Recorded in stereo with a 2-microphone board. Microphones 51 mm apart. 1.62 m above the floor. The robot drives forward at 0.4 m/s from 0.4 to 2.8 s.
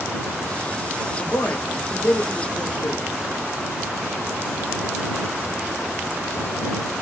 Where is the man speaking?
70° left (ahead or behind), 1.3 m; by 3.0 s 75° left (ahead or behind), 1.2 m.